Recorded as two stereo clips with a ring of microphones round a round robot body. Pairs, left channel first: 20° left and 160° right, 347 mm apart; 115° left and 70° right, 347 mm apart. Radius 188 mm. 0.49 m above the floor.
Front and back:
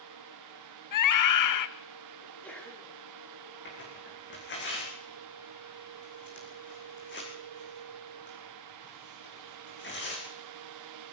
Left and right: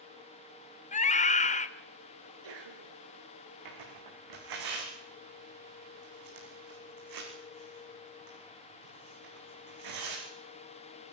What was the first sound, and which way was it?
A scream, 45° left.